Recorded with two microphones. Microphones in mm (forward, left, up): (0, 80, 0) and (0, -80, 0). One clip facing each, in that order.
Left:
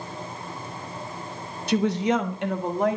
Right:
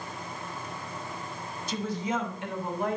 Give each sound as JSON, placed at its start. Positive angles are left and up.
{"t": 1.7, "sound": "a woman speaking", "side_deg": 70, "distance_m": 0.8}